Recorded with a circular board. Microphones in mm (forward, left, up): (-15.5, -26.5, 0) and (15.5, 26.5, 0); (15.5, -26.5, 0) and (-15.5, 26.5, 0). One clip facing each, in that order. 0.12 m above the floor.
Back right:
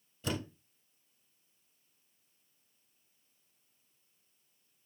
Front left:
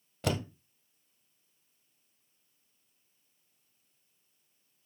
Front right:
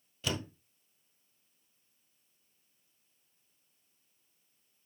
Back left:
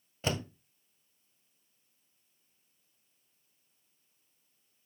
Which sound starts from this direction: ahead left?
A door slam, at 0.2 s.